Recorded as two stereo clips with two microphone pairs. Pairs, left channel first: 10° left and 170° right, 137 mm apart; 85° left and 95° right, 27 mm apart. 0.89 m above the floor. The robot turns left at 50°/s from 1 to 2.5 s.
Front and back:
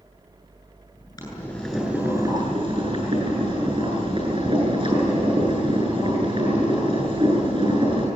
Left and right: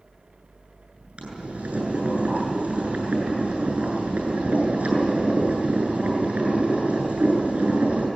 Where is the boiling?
55° right, 8.5 m; by 8.1 s 120° right, 8.5 m.